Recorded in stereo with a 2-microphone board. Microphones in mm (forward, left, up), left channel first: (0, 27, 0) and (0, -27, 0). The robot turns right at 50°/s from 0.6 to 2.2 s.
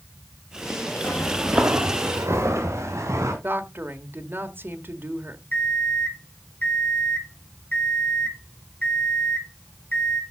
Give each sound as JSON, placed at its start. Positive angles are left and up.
{"t": 1.0, "sound": "footsteps", "side_deg": 25, "distance_m": 2.0}
{"t": 3.4, "sound": "a woman speaking", "side_deg": -45, "distance_m": 1.4}
{"t": 5.5, "sound": "an alarm clock", "side_deg": 40, "distance_m": 2.5}